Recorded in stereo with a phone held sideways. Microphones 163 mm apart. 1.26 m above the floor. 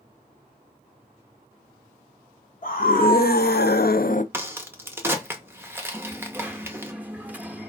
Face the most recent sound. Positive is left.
turn(degrees=-10)  # may be behind; listen again after turning